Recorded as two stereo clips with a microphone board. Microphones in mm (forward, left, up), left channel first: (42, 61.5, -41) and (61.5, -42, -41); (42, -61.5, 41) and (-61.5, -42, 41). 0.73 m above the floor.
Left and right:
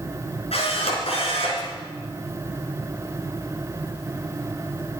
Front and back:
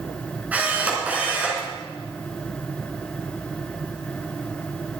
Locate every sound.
0.5 s a camera shutter: 95° left, 4 m